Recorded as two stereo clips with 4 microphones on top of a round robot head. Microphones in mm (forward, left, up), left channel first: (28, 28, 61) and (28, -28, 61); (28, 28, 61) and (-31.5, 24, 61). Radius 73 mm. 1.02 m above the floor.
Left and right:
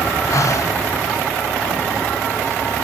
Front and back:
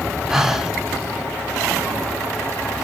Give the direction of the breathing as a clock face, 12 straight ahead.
9 o'clock.